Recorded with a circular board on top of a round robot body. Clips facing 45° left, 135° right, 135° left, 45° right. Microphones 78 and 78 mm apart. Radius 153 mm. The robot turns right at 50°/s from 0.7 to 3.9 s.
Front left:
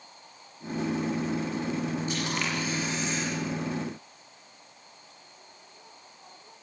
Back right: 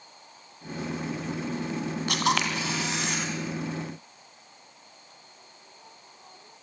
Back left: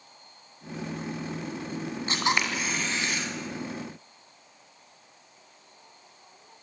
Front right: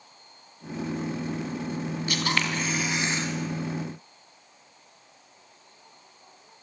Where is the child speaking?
No child speaking in this recording.